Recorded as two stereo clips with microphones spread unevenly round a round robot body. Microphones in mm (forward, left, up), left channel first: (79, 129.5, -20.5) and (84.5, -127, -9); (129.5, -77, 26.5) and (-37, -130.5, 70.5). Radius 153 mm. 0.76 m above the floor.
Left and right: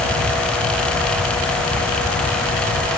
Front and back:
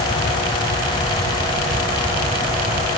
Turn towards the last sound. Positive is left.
No sound to turn to.